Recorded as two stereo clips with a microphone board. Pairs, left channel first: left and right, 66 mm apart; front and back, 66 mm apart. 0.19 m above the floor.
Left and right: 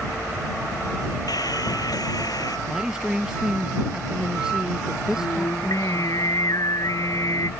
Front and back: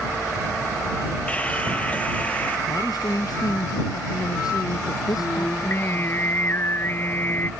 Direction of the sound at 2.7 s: 10° right.